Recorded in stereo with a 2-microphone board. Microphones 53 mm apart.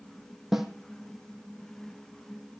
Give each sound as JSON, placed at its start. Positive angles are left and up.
{"t": 0.5, "sound": "a snare drum", "side_deg": -5, "distance_m": 1.1}